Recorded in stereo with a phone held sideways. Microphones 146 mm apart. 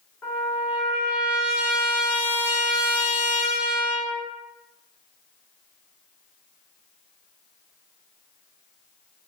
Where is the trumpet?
15° left (ahead or behind), 1.1 m.